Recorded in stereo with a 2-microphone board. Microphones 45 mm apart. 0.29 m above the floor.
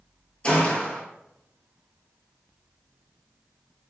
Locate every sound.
0.4 s a gunshot: 25° left (ahead or behind), 1.0 m